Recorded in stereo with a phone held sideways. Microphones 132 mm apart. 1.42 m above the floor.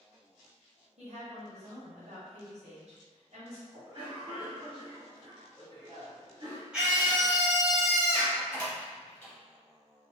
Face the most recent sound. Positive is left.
turn(degrees=15)  # may be behind; listen again after turning